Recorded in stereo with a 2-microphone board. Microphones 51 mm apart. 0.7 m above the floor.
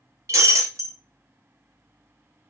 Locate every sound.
0.3 s breaking glass: 70° right (ahead or behind), 1.5 m